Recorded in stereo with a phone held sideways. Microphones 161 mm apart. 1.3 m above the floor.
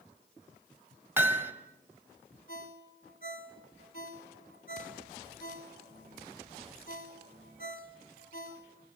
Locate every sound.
1.2 s hammering: 15° right (ahead or behind), 2 m
2.5 s a ringtone: 55° left (ahead or behind), 3 m